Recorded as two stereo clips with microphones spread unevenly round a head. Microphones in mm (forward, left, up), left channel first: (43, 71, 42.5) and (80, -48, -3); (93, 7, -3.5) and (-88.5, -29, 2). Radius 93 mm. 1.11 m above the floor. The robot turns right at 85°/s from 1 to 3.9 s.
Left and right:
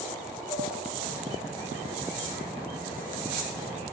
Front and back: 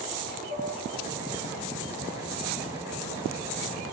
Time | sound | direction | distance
0.5 | dishes clattering | 60° left | 7 m